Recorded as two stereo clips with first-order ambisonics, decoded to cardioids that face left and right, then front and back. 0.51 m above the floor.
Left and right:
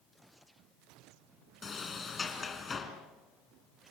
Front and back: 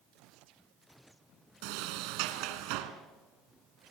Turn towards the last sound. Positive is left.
turn(degrees=165)